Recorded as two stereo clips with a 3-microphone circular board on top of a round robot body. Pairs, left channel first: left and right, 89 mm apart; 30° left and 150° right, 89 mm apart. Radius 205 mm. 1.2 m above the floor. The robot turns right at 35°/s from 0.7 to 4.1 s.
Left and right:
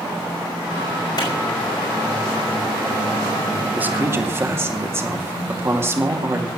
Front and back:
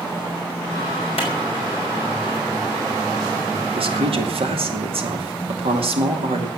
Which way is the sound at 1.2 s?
45° left.